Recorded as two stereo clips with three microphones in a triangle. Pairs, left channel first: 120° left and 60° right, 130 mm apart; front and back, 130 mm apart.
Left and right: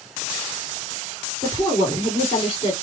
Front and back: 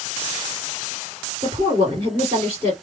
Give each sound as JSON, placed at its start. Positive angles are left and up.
{"t": 1.4, "sound": "a woman speaking", "azimuth_deg": 170, "distance_m": 1.8}